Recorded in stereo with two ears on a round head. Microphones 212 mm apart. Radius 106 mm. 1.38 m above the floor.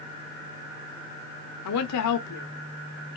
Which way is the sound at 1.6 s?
80° left.